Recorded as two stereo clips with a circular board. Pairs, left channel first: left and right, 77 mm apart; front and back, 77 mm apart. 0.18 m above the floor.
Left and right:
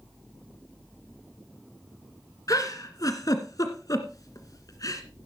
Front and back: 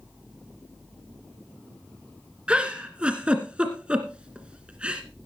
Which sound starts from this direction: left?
A giggle, at 2.5 s.